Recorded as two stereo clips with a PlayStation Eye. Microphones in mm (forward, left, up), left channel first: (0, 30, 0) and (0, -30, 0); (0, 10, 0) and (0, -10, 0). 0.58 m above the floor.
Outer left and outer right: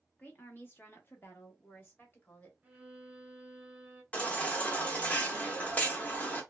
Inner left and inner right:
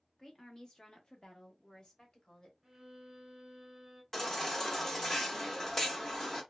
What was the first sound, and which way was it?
A woman speaking, 30° left (ahead or behind).